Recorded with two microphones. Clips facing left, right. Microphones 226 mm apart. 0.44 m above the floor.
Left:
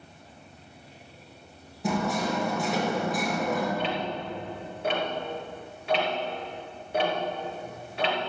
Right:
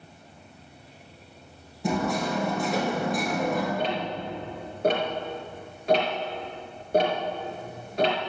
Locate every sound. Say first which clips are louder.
1.8 s hammering: right 1 dB; centre (ahead or behind), 5 m
3.8 s ticking: right 1 dB; 40° right (ahead or behind), 2.5 m